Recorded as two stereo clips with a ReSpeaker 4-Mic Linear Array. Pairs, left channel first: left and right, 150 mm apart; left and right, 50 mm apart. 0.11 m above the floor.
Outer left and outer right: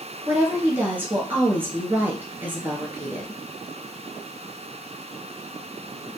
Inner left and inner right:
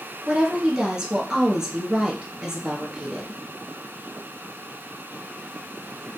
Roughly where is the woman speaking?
Centre.